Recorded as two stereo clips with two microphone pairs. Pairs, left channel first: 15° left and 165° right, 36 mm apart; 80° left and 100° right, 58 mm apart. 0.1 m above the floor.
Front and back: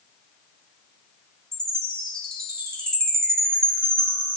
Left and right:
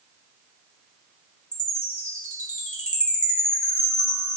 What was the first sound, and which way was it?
A chime, 50° left.